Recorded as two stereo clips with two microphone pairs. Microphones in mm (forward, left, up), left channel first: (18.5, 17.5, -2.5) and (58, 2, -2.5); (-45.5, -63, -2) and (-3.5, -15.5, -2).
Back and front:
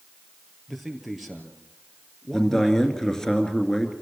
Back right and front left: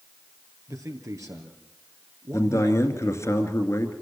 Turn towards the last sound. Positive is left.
turn(degrees=-125)